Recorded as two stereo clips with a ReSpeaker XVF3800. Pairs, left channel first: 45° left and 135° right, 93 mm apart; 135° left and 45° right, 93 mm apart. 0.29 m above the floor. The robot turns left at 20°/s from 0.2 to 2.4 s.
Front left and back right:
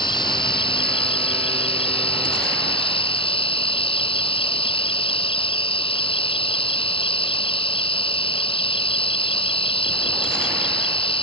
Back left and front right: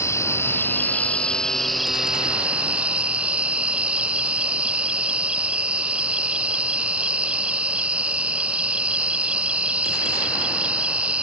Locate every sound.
0.0 s an insect: 75° left; by 11.2 s 30° left